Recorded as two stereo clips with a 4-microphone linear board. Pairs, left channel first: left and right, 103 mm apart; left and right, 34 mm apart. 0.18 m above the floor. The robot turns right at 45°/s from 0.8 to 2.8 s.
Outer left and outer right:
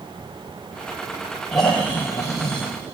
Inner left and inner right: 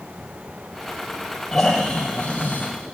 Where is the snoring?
Straight ahead, 4.5 m; by 2.7 s 55° left, 4.5 m.